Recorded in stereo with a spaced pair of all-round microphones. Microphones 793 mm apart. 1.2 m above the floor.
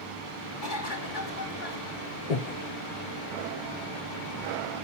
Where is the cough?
80° left, 3.5 m.